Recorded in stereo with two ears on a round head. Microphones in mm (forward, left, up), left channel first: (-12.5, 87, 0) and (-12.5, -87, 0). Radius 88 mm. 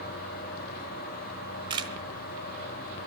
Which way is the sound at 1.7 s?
25° right (ahead or behind).